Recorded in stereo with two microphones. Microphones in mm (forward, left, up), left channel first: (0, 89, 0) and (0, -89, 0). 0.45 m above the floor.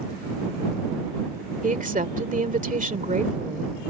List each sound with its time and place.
1.6 s a woman speaking: 50° right (ahead or behind)